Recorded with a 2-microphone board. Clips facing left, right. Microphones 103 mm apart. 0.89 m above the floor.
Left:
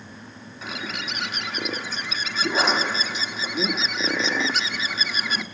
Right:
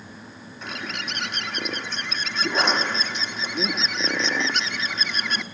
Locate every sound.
0.6 s a bird: centre (ahead or behind), 1.2 m